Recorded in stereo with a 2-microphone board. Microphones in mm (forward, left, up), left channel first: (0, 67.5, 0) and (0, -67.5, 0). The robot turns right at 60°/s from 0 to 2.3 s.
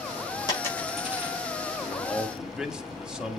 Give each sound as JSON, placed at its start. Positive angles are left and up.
{"t": 0.5, "sound": "a dropped coin", "side_deg": 30, "distance_m": 7.0}
{"t": 1.8, "sound": "a man speaking", "side_deg": 15, "distance_m": 2.0}